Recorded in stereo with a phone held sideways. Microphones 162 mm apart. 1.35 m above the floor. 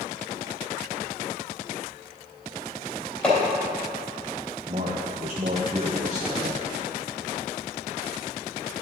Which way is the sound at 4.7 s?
45° right (ahead or behind).